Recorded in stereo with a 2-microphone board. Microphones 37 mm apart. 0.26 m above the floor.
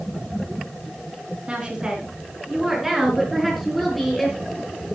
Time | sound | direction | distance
1.5 | a woman speaking | 35° right (ahead or behind) | 3.5 m